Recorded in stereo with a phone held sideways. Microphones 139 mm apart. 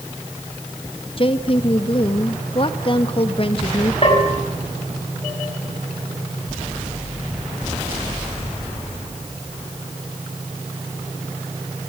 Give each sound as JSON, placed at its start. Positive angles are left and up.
{"t": 1.2, "sound": "a woman speaking", "side_deg": 40, "distance_m": 1.9}
{"t": 4.0, "sound": "a bell", "side_deg": 40, "distance_m": 7.0}